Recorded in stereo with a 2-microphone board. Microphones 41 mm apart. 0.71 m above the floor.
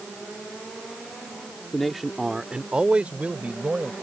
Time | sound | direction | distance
1.7 | a man speaking | 5° left (ahead or behind) | ?